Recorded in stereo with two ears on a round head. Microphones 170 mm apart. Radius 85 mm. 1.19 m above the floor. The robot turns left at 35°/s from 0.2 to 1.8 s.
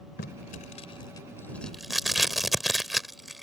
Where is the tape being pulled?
55° left (ahead or behind); by 3.4 s centre (ahead or behind).